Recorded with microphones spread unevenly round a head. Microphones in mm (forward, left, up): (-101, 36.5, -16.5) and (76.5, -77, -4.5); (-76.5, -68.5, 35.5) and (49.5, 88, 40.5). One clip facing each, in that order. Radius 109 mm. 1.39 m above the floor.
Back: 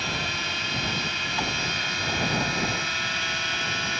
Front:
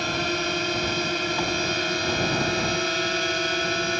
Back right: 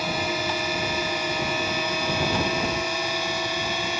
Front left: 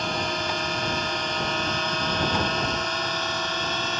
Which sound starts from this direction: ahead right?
A drone, at 0.0 s.